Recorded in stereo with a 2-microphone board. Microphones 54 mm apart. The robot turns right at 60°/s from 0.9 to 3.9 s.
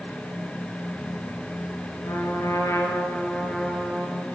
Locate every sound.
2.0 s a trumpet: 80° left, 8 m; by 4.2 s 170° right, 8 m